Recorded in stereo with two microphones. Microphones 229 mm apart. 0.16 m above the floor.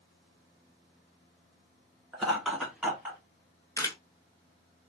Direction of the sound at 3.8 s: 15° left (ahead or behind).